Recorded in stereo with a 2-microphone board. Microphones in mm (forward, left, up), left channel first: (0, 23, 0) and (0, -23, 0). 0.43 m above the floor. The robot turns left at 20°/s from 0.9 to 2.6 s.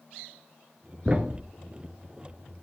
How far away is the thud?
About 0.9 m.